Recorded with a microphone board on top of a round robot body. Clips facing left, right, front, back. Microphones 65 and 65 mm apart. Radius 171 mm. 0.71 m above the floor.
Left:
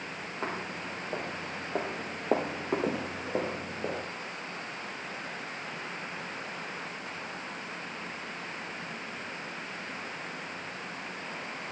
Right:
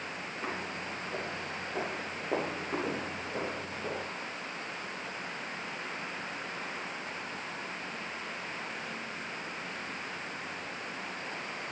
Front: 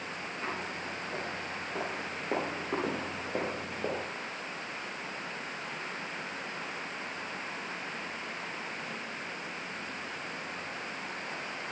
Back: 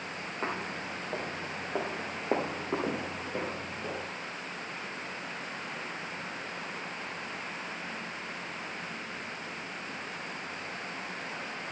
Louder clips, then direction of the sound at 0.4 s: Left 2 dB, back 3 dB; 130° left.